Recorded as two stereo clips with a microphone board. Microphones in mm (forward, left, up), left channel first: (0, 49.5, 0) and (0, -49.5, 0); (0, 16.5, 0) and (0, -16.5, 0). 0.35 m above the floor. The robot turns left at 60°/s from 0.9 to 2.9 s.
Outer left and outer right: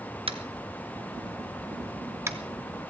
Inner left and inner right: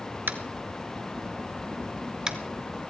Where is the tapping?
70° right (ahead or behind), 1.0 m; by 2.4 s 20° right (ahead or behind), 1.0 m.